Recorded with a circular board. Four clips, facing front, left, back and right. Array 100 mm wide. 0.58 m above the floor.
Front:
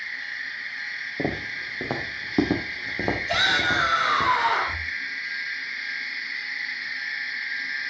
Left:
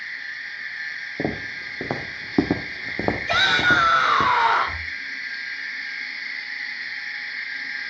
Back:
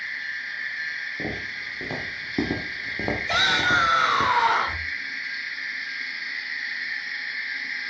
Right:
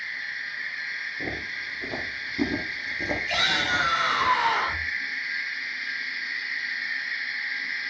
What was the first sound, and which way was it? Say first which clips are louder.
Footsteps: left 10 dB, front 7 dB; 60° left.